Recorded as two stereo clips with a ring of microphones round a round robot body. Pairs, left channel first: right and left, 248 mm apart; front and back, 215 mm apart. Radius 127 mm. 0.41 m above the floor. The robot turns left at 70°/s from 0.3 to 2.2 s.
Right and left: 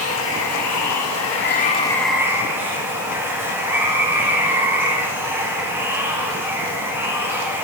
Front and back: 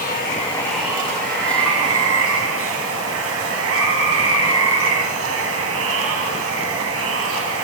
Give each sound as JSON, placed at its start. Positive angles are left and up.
{"t": 0.0, "sound": "running water", "azimuth_deg": -55, "distance_m": 3.0}